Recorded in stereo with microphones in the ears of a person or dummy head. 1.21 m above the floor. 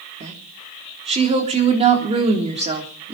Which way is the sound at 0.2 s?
30° right (ahead or behind).